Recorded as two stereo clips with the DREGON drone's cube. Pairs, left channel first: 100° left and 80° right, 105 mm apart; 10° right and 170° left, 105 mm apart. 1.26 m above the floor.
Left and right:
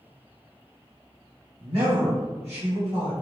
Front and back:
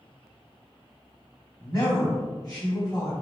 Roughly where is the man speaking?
Ahead right.